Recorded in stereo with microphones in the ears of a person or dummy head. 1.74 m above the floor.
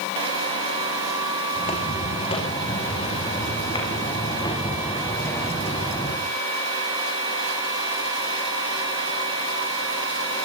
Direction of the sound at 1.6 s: 35° left (ahead or behind).